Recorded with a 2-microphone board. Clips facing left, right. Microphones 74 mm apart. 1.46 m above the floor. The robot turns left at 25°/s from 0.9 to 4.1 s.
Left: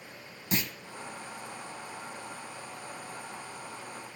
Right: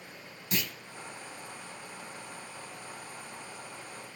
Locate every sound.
0.5 s a clunk: 30° left (ahead or behind), 1.6 m